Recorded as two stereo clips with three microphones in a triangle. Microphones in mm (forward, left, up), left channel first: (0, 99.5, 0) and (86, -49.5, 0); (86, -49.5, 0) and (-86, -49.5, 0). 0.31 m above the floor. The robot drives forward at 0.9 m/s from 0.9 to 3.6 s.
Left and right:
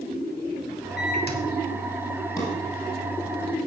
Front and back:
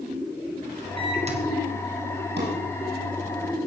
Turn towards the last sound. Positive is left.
turn(degrees=-170)